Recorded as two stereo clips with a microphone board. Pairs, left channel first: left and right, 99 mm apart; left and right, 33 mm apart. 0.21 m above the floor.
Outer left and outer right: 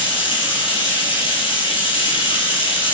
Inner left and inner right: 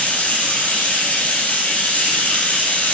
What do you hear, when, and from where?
0.0 s running water: 55° left (ahead or behind), 5 m